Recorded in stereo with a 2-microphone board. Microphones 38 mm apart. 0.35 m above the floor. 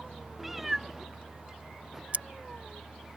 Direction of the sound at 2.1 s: 40° right (ahead or behind).